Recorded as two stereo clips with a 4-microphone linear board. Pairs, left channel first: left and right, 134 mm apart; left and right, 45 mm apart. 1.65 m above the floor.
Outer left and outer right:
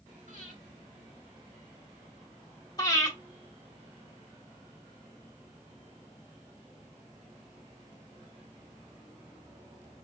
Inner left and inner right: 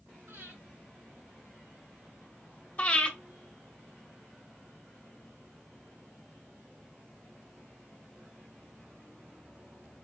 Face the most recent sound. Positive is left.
turn(degrees=25)  # may be behind; listen again after turning